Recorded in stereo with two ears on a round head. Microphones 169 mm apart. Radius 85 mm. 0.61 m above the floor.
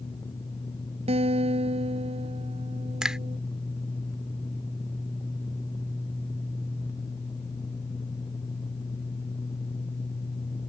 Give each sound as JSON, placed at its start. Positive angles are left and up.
{"t": 1.1, "sound": "a guitar", "side_deg": -35}
{"t": 3.0, "sound": "a finger snap", "side_deg": -5}